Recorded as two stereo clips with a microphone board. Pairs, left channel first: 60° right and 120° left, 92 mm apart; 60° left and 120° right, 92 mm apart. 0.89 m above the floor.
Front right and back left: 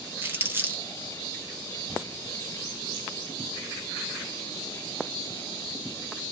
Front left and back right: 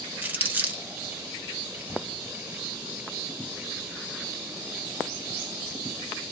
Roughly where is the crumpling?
Behind.